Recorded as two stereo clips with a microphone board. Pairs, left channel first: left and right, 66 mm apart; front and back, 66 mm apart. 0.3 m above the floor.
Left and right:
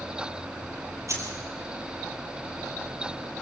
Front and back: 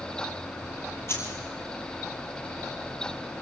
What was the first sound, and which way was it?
Keys jangling, 50° right.